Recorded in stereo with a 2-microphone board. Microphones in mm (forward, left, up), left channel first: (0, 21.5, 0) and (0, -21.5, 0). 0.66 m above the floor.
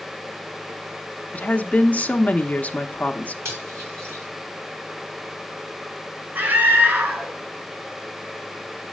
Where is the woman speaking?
35° left (ahead or behind), 0.7 m.